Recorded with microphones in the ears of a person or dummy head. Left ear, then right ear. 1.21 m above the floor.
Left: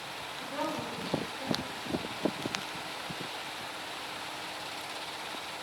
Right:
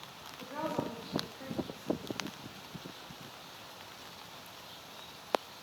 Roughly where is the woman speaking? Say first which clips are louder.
Left 1 dB; right.